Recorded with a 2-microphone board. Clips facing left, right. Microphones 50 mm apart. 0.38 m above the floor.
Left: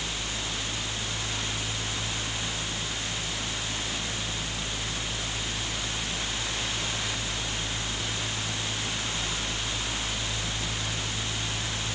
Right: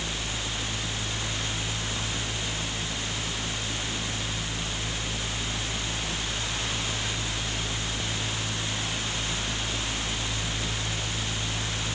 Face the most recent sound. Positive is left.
No sound to turn to.